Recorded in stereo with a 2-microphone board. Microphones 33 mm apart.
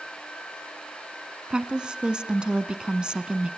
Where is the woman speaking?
30° right (ahead or behind), 1.1 m.